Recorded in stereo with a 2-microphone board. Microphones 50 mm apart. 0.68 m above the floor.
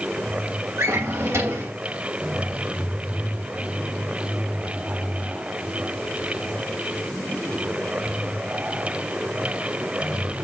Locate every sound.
0.8 s a drawer: 80° right, 2.5 m